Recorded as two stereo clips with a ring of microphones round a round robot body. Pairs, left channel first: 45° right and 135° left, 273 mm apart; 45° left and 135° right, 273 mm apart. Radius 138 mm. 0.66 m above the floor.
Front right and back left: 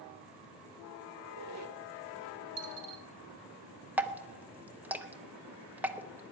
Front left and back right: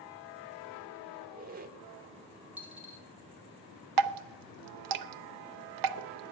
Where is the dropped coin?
140° left, 1.7 m.